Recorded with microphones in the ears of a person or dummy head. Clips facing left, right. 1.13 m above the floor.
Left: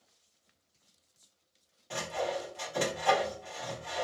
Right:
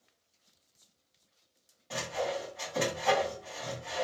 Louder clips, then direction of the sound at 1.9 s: Even; 5° left (ahead or behind).